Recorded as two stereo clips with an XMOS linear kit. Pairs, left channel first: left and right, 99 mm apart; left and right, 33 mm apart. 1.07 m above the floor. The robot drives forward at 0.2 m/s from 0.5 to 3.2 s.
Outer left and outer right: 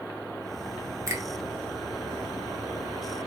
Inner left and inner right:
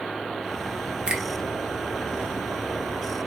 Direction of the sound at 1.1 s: 30° right (ahead or behind).